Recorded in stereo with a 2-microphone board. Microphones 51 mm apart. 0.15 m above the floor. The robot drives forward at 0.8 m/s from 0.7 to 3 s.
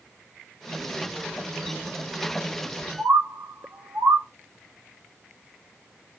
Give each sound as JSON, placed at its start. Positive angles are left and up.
{"t": 3.0, "sound": "a bird", "side_deg": -45, "distance_m": 0.7}